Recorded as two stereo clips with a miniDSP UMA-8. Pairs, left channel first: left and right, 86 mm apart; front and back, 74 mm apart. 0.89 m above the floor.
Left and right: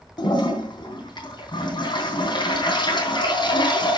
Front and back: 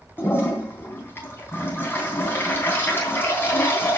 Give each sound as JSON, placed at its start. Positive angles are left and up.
{"t": 0.2, "sound": "a toilet flushing", "azimuth_deg": 60, "distance_m": 3.5}